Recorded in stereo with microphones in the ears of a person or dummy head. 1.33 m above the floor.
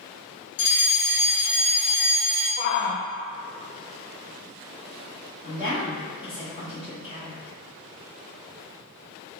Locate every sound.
0.6 s a fire alarm: 25° left (ahead or behind), 1.0 m
2.6 s a shout: 50° left (ahead or behind), 0.6 m
5.4 s a woman speaking: 25° left (ahead or behind), 1.6 m